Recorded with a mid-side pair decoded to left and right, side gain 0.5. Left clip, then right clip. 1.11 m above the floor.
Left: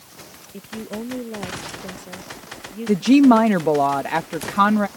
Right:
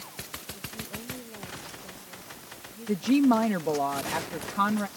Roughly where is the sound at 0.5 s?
Ahead left.